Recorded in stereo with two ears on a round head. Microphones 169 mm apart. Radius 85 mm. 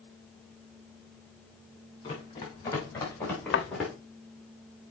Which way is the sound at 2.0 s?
25° left (ahead or behind).